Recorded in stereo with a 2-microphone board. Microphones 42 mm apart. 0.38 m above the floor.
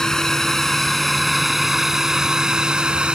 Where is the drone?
10° left (ahead or behind); by 3.2 s 25° right (ahead or behind).